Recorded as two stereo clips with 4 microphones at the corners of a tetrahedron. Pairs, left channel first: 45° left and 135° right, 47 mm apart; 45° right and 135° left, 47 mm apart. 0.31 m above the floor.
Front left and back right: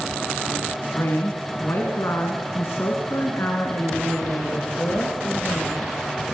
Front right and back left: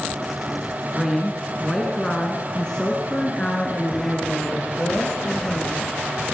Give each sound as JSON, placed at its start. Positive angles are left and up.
{"t": 0.9, "sound": "a woman speaking", "azimuth_deg": 50, "distance_m": 2.5}